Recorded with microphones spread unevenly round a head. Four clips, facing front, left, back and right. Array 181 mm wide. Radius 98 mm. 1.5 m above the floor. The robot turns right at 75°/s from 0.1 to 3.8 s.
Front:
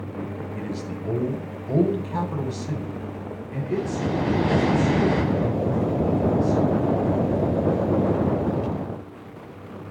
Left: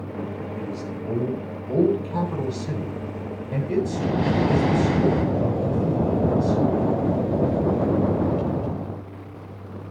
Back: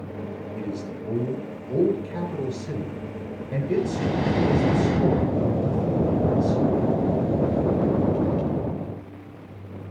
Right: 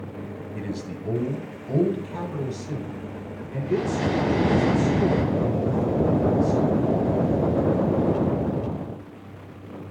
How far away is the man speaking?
About 9 m.